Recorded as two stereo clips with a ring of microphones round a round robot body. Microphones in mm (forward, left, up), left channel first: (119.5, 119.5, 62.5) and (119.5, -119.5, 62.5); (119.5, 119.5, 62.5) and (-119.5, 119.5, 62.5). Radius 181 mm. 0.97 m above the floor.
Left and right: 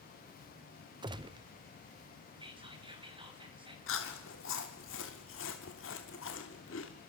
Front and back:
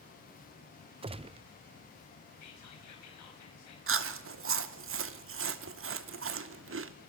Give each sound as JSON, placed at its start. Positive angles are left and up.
{"t": 1.0, "sound": "a gunshot", "azimuth_deg": -140, "distance_m": 0.5}
{"t": 2.4, "sound": "whispering", "azimuth_deg": -20, "distance_m": 5.5}
{"t": 3.9, "sound": "chewing", "azimuth_deg": 145, "distance_m": 1.2}